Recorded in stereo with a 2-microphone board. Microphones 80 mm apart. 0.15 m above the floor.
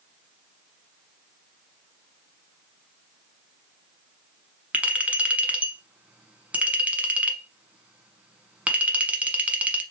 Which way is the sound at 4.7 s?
20° right (ahead or behind).